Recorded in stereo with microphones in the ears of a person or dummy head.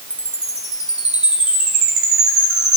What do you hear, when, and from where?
0.1 s a chime: 5° right (ahead or behind), 1.5 m